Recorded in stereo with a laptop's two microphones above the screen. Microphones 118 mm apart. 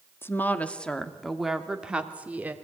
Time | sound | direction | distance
0.2 | a woman speaking | 20° left (ahead or behind) | 1.8 m